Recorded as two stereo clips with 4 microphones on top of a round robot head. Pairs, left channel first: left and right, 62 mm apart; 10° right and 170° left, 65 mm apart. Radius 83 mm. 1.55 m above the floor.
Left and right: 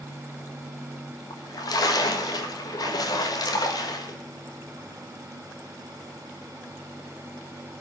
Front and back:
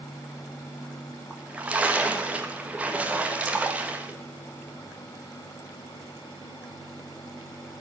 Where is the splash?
105° left, 1.4 m.